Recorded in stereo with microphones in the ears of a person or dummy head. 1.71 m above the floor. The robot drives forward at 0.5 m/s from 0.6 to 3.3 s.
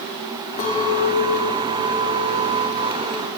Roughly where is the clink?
Left.